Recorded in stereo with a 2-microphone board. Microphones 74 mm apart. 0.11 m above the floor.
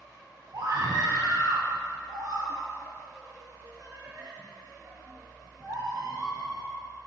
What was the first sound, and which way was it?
A scream, 60° right (ahead or behind).